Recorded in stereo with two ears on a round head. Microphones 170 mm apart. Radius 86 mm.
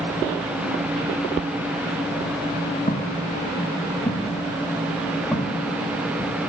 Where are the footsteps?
35° left (ahead or behind), 3.5 m; by 6.3 s 10° right (ahead or behind), 2.5 m.